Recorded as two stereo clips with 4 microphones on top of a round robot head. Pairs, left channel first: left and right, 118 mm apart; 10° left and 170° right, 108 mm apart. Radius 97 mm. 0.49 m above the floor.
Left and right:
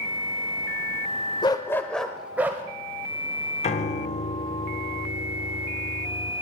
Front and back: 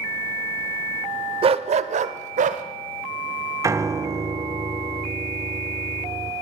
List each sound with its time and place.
1.4 s a dog barking: 150° left, 0.6 m; by 2.6 s 165° right, 0.9 m
3.6 s a piano: 125° left, 0.6 m